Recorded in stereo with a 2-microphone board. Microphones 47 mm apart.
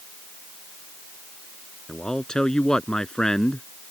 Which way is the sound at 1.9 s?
15° left (ahead or behind).